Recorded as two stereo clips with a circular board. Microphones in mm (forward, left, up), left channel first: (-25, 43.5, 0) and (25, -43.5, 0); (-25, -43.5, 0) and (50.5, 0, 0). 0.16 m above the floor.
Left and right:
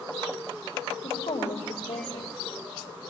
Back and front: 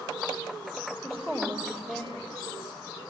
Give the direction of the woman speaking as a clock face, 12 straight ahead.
8 o'clock.